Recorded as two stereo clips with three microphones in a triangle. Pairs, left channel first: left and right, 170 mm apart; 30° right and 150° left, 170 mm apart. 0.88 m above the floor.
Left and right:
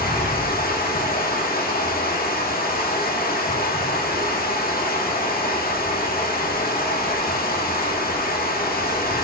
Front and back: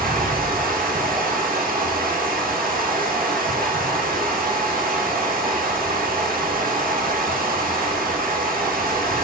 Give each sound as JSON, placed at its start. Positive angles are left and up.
{"t": 0.0, "sound": "running water", "azimuth_deg": 120, "distance_m": 1.3}